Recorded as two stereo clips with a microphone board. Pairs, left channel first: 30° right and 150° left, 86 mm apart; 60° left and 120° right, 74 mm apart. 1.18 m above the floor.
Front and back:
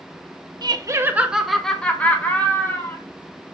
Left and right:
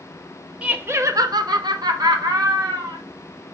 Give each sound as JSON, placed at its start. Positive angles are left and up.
{"t": 0.6, "sound": "laughter", "azimuth_deg": 170, "distance_m": 0.8}